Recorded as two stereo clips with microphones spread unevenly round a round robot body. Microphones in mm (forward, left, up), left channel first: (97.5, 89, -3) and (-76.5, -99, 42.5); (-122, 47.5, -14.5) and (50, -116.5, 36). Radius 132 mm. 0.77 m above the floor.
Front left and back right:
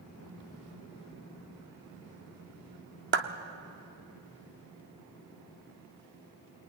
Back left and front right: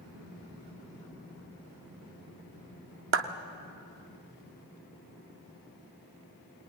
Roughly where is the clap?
Right.